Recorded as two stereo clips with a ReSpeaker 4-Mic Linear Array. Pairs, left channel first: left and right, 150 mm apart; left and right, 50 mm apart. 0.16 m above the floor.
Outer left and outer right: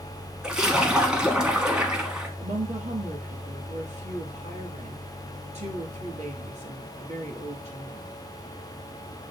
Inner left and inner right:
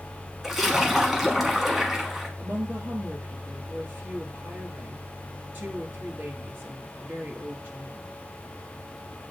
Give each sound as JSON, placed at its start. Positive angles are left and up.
{"t": 0.4, "sound": "a splash", "side_deg": -5, "distance_m": 1.1}
{"t": 2.4, "sound": "a woman speaking", "side_deg": -50, "distance_m": 2.5}